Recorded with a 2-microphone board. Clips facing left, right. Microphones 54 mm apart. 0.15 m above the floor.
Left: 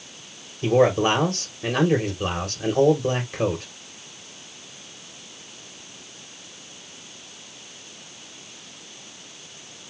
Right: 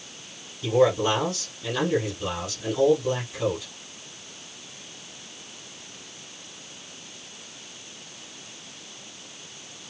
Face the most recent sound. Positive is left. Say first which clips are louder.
# left 2 dB
turn(degrees=55)  # may be behind; listen again after turning